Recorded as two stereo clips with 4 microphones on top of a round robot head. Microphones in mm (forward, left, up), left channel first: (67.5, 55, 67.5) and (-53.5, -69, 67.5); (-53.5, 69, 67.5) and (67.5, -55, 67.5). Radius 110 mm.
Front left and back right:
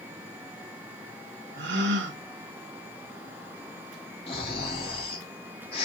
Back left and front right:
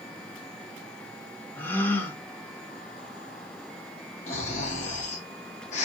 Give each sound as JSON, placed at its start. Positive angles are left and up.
{"t": 1.6, "sound": "a gasp", "azimuth_deg": -145, "distance_m": 0.8}
{"t": 4.3, "sound": "snoring", "azimuth_deg": 95, "distance_m": 0.6}